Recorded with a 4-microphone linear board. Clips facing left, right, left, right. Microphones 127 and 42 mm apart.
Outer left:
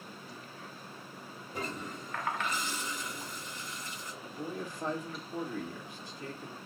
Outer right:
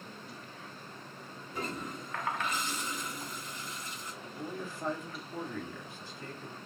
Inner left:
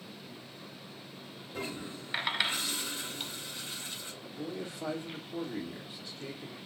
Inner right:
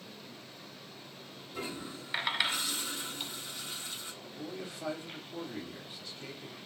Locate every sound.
1.5 s a toilet flushing: 35° left (ahead or behind), 2 m
4.2 s a man speaking: 15° left (ahead or behind), 1.8 m